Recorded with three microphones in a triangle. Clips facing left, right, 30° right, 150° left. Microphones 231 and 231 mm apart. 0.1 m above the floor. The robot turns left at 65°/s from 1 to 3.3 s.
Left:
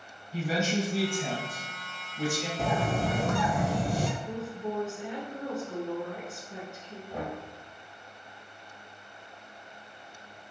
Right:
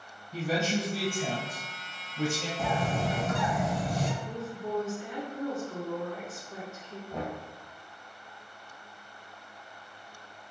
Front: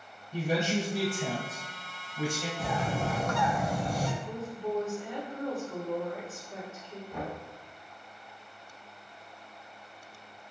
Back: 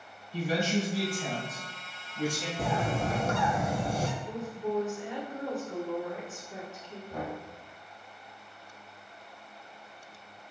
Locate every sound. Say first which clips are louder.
0.3 s a man speaking: even, even; 45° right, 1.9 m; by 2.5 s 140° right, 1.9 m
2.6 s a bird: left 2 dB, back 3 dB; 135° left, 0.6 m; by 4.1 s 90° left, 0.6 m
4.2 s a woman speaking: left 2 dB, back 1 dB; 110° left, 1.2 m
7.1 s knocking: even, back 1 dB; 160° left, 1.9 m